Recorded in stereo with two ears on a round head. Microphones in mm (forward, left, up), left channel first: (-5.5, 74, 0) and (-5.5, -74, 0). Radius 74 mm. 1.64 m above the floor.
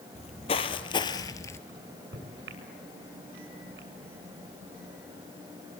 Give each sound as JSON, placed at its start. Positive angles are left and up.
{"t": 0.1, "sound": "footsteps", "side_deg": 40, "distance_m": 2.5}
{"t": 1.7, "sound": "a microwave", "side_deg": -75, "distance_m": 7.5}